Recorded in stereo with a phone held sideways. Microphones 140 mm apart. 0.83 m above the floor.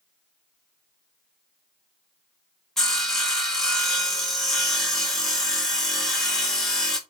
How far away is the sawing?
About 1.0 m.